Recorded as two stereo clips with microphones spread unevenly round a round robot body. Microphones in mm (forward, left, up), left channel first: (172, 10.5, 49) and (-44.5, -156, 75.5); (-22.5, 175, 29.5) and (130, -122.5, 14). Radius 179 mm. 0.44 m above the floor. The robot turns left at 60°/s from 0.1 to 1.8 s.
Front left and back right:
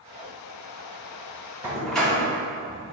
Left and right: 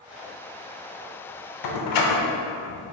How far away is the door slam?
About 0.9 m.